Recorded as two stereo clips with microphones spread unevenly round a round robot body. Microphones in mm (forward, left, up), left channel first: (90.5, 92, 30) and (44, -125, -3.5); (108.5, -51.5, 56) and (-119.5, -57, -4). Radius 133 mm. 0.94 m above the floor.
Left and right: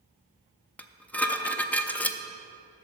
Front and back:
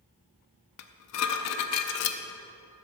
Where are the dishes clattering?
5° right, 0.6 m.